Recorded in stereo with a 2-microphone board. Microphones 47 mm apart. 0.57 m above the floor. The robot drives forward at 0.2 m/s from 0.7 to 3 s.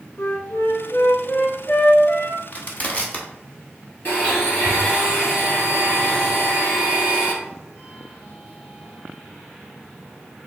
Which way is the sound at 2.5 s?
35° left (ahead or behind).